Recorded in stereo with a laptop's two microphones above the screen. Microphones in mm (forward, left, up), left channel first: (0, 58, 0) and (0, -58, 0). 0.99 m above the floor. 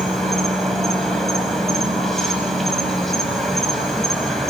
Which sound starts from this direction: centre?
An insect, at 0.0 s.